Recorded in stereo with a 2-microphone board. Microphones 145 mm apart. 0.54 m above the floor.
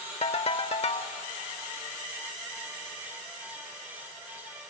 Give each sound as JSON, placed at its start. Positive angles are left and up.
{"t": 0.2, "sound": "a ringtone", "side_deg": 45, "distance_m": 0.8}